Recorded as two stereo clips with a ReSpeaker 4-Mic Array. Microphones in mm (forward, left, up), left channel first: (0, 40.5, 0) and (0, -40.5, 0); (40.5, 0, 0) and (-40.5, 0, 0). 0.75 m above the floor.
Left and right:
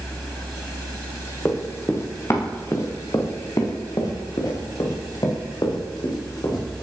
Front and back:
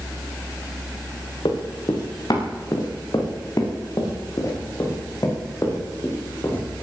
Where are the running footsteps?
30° left, 4.5 m; by 6.8 s 55° left, 8 m.